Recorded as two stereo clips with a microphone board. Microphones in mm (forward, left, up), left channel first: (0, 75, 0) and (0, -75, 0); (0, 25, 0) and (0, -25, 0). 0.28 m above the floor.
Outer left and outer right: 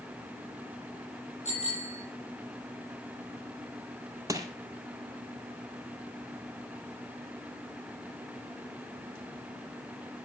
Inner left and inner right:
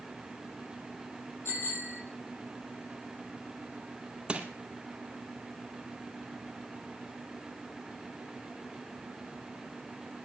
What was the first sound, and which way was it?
A bicycle bell, 50° left (ahead or behind).